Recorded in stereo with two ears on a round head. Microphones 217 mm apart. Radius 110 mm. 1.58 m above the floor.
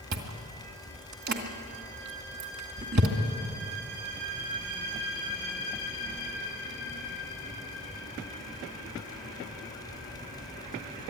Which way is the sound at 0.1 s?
45° right (ahead or behind).